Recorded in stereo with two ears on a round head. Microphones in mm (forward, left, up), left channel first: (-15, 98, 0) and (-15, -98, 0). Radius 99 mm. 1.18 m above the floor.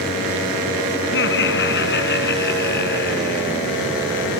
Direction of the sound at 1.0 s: 50° left (ahead or behind).